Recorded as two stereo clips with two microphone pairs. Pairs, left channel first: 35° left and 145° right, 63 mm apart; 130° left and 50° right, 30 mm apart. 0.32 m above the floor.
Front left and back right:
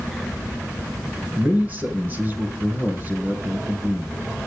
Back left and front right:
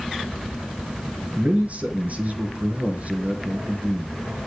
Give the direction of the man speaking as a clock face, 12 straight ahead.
3 o'clock.